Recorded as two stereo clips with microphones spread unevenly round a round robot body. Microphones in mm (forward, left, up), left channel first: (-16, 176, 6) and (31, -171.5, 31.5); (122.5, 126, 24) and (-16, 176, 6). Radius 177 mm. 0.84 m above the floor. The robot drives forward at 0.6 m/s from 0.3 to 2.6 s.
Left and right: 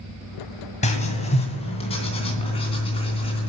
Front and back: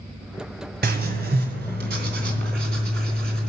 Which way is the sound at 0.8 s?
170° left.